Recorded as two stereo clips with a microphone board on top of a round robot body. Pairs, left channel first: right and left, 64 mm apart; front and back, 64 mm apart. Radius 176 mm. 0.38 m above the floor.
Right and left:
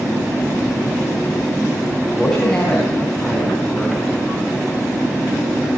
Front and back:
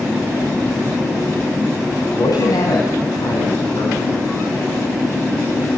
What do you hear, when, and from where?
2.0 s a man speaking: 15° right, 4 m; by 4.2 s 5° right, 5.5 m